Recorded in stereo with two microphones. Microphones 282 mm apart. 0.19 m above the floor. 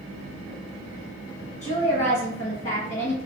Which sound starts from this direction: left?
A woman speaking, at 1.6 s.